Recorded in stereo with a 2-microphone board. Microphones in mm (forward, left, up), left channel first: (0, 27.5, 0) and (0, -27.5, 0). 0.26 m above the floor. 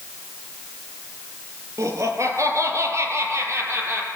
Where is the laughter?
70° right (ahead or behind), 6.5 m; by 4.1 s 45° right (ahead or behind), 7.5 m.